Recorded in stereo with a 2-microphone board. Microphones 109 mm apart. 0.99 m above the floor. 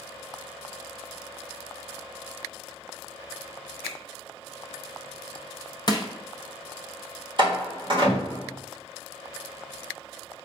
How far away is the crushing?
About 0.6 m.